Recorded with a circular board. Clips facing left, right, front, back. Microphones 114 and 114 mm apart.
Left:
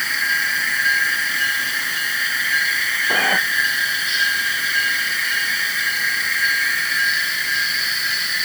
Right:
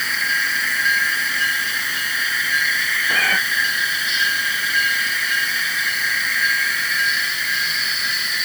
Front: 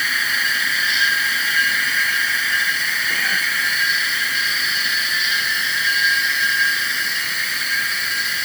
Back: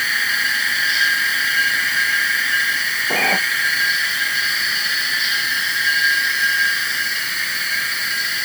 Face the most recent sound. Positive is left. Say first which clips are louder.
# left 3 dB, back 8 dB
turn(degrees=155)